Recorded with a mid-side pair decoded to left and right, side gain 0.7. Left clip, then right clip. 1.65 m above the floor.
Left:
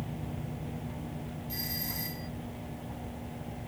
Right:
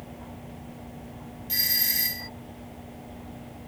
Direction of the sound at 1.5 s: 50° right.